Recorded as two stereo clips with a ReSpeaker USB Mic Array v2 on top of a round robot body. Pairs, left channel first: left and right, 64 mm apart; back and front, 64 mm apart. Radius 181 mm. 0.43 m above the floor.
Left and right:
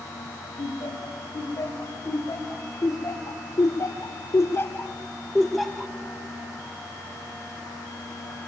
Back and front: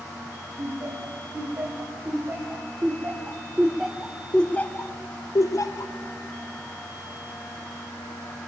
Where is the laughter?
50° left, 3 m; by 5.9 s 170° right, 1.2 m.